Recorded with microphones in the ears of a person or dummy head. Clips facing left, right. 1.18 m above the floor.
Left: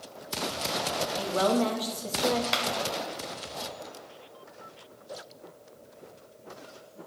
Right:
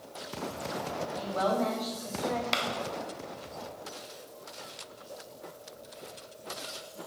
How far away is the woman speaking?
About 1.6 m.